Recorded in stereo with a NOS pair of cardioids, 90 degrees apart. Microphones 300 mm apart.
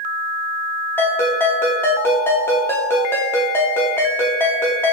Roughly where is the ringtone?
Ahead.